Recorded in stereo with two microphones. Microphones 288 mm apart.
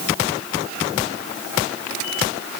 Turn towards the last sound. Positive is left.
No sound to turn to.